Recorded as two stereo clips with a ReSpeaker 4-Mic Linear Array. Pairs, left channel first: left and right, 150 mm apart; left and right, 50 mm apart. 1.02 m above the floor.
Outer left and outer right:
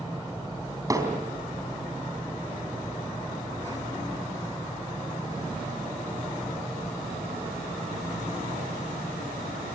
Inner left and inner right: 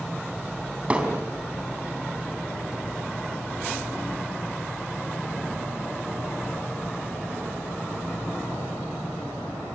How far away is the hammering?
About 4 m.